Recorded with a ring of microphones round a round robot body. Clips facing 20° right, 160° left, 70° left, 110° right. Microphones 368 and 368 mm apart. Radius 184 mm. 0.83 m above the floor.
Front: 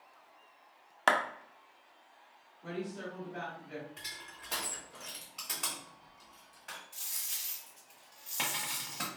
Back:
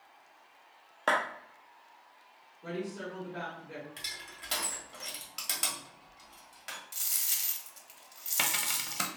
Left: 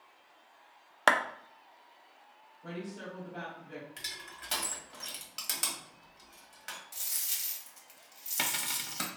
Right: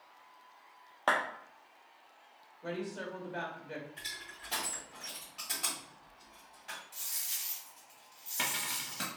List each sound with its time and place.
1.1 s a clap: 40° left, 0.5 m
2.6 s a woman speaking: 115° right, 1.7 m
4.0 s crushing: 105° left, 1.6 m
6.9 s a dropped coin: 135° left, 0.8 m